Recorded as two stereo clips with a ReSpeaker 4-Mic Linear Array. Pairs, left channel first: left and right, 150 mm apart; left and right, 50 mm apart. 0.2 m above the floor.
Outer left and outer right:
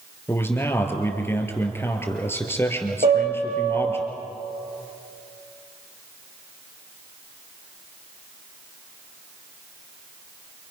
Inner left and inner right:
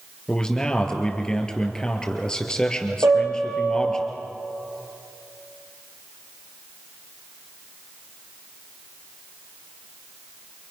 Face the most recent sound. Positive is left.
turn(degrees=-70)  # may be behind; listen again after turning